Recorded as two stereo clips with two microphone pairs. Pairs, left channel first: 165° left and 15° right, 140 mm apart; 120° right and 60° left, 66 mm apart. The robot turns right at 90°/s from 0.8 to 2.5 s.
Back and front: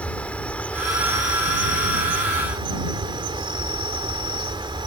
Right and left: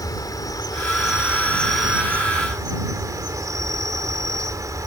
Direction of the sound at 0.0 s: 115° right.